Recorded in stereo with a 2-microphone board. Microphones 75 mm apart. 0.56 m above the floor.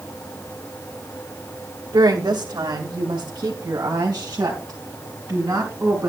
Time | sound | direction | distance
1.9 | a woman speaking | 70° right (ahead or behind) | 2 m